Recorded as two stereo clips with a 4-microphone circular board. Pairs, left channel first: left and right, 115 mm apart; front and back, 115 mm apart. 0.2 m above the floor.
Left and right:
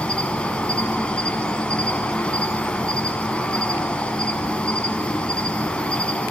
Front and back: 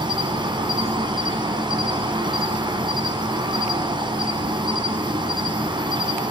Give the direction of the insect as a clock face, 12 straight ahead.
6 o'clock.